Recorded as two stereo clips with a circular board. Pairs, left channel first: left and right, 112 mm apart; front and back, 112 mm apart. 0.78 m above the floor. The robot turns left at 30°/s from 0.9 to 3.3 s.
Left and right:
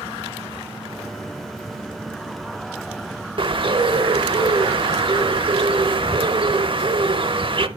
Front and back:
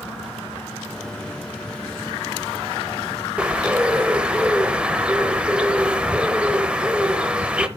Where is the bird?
100° right, 0.7 m.